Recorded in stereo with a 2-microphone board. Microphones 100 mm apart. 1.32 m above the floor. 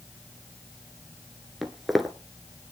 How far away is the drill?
No drill in this recording.